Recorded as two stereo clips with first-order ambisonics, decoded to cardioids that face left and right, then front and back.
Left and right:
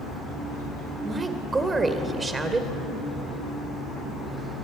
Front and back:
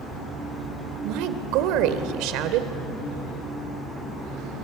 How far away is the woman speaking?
About 2.0 m.